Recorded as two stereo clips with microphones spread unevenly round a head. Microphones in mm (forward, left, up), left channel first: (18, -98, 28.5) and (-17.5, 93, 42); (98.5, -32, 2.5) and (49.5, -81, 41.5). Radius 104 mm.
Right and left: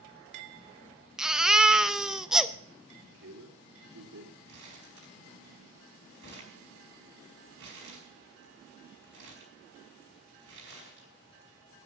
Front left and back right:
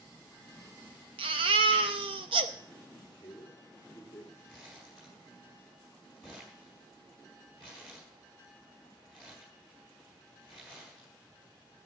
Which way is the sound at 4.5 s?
135° left.